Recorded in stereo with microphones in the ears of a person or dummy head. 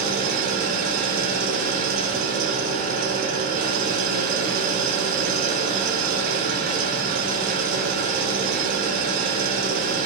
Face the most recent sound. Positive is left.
turn(degrees=-45)  # may be behind; listen again after turning